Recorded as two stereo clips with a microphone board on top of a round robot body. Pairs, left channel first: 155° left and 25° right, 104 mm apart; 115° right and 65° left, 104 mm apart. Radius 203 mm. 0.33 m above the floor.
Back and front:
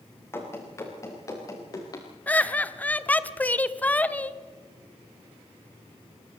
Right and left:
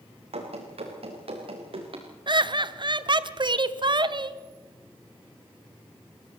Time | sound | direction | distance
0.3 | running footsteps | 90° left | 4.5 m
2.3 | laughter | 85° left | 1.2 m